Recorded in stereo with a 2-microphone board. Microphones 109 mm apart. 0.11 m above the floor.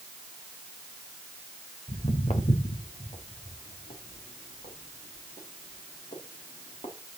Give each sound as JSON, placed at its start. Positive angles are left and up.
{"t": 1.9, "sound": "footsteps", "side_deg": 60, "distance_m": 1.8}